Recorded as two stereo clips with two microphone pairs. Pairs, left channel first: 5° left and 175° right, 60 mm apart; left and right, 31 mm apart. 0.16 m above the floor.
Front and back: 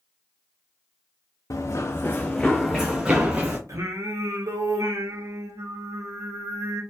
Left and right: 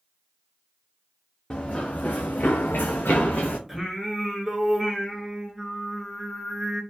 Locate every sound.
1.5 s running footsteps: 25° left, 0.6 m; by 3.6 s 120° left, 1.0 m
3.7 s singing: 175° right, 1.0 m